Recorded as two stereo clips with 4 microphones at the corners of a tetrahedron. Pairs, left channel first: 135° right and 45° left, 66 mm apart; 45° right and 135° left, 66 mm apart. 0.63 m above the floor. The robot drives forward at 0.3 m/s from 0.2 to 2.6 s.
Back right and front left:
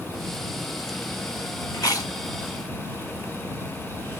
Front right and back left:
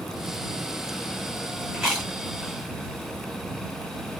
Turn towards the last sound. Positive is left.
turn(degrees=-150)